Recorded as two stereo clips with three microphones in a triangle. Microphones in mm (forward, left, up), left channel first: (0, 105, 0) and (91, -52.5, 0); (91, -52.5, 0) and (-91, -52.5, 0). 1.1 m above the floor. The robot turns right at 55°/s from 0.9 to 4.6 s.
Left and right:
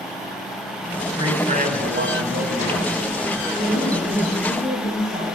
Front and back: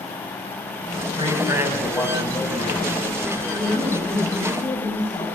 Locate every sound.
1.2 s a man speaking: 125° right, 8 m; by 2.9 s 30° right, 8 m
3.5 s a woman speaking: 125° right, 9.5 m; by 5.2 s 65° right, 9.5 m